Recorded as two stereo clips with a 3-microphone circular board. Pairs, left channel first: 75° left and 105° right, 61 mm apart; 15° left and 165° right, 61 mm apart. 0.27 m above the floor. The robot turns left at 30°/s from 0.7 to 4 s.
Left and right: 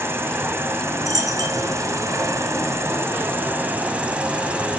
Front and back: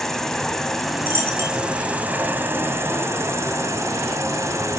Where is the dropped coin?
105° right, 2.5 m; by 1.7 s 125° right, 2.5 m.